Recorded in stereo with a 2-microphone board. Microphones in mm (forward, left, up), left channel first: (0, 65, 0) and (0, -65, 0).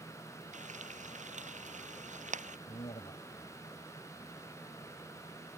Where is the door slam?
I don't hear a door slam.